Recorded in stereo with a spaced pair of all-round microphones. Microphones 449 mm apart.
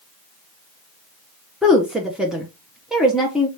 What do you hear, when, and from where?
1.6 s a woman speaking: centre (ahead or behind), 0.8 m